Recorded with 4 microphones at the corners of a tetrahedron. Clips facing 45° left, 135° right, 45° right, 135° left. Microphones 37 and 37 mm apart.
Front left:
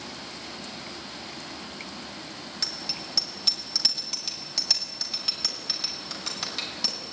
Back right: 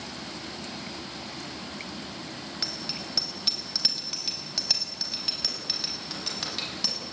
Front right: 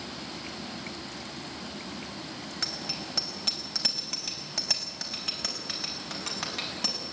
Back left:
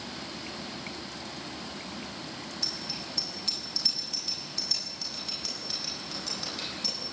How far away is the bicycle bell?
About 4.5 m.